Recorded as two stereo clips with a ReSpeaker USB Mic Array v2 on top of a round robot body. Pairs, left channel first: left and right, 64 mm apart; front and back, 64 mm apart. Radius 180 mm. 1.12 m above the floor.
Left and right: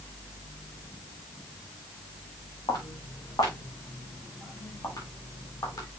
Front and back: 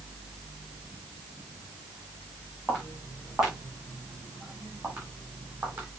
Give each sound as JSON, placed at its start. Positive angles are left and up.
{"t": 2.7, "sound": "footsteps", "azimuth_deg": 95, "distance_m": 4.5}